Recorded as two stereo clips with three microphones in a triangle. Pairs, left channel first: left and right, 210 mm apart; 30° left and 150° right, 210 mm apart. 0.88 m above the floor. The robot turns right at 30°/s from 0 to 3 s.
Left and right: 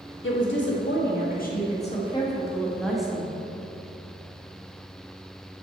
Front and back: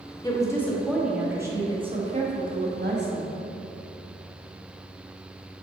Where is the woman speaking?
100° left, 1.4 m; by 3.3 s straight behind, 1.4 m.